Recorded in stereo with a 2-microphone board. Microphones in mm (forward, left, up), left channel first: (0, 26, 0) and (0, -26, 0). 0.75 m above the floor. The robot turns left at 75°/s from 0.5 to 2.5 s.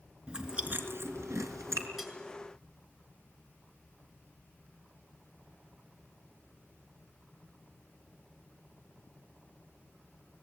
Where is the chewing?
20° right (ahead or behind), 3.5 m; by 1.9 s 60° right (ahead or behind), 3.5 m.